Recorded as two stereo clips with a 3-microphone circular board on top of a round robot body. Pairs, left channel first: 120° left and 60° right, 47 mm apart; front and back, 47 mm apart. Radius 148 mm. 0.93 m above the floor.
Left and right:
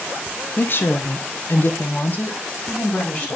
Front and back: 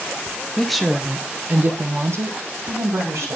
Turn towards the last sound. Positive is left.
turn(degrees=180)